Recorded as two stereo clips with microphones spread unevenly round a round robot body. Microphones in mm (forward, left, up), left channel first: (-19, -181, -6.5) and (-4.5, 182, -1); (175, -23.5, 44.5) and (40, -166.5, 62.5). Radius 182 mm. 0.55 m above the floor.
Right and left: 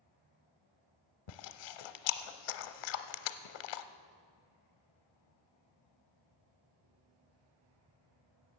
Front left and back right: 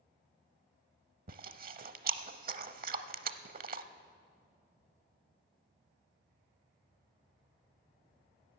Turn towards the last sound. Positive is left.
turn(degrees=-95)